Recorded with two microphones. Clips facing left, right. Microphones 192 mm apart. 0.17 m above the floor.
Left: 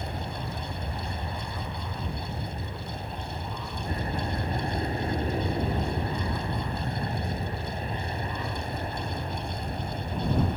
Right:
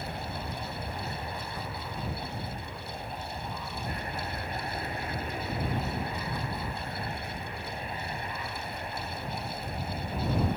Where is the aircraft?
30° left (ahead or behind); by 10.6 s 40° left (ahead or behind).